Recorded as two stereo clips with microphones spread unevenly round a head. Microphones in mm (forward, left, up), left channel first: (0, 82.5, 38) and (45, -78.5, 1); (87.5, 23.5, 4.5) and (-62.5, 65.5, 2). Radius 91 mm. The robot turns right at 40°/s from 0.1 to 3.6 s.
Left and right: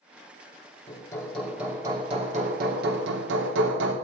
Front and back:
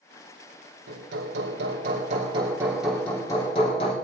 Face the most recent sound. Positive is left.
turn(degrees=-80)